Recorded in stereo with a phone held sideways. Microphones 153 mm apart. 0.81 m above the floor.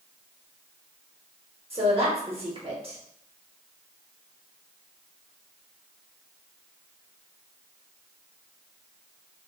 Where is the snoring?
No snoring in this recording.